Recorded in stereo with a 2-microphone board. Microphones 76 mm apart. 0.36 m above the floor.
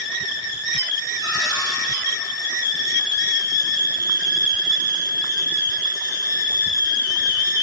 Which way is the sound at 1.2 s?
55° right (ahead or behind).